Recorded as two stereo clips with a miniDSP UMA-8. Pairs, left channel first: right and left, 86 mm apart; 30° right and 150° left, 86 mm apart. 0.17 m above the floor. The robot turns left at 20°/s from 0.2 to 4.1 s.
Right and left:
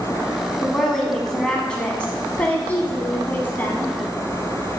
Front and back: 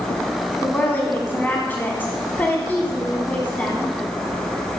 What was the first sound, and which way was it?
A woman speaking, 10° right.